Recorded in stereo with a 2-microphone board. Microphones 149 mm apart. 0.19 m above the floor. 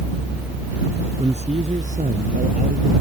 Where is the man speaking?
40° right (ahead or behind); by 2.9 s 70° right (ahead or behind).